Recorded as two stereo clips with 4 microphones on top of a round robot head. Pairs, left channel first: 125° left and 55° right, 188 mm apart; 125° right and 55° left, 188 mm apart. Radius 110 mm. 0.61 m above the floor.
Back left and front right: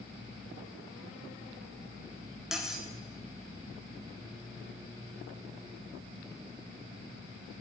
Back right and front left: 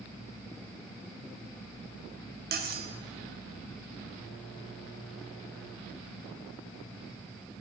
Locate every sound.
2.5 s cutlery clinking: 30° left, 0.7 m